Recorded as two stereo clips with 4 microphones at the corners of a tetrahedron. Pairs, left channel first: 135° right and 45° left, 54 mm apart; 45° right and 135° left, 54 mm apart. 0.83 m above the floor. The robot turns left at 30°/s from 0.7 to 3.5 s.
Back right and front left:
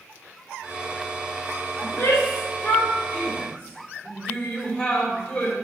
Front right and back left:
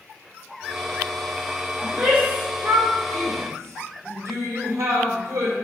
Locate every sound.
1.8 s a shout: 160° right, 2.5 m; by 5.5 s 150° left, 2.5 m